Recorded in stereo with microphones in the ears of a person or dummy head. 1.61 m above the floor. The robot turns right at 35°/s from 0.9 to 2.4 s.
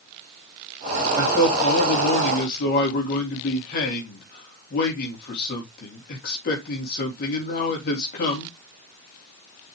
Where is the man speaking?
25° left, 3.5 m; by 8.5 s 70° left, 3.5 m.